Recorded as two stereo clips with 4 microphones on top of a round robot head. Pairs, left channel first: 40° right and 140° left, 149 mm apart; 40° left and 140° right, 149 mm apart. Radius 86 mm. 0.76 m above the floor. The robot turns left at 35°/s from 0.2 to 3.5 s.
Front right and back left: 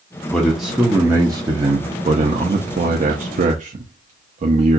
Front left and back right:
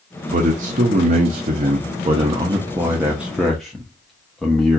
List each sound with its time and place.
0.3 s a man speaking: 120° right, 0.8 m; by 4.8 s 125° left, 0.8 m